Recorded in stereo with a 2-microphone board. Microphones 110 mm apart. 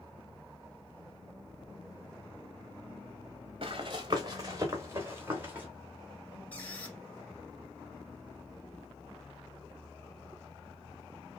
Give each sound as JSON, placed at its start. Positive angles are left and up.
{"t": 3.6, "sound": "running footsteps", "side_deg": -55, "distance_m": 1.2}
{"t": 6.5, "sound": "a squeak", "side_deg": 15, "distance_m": 1.3}